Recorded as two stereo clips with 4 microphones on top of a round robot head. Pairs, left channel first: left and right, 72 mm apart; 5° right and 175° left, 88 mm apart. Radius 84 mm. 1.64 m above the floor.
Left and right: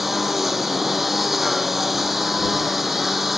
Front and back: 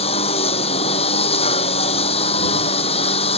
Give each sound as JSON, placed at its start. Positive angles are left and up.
{"t": 0.0, "sound": "a lawn mower", "azimuth_deg": 0}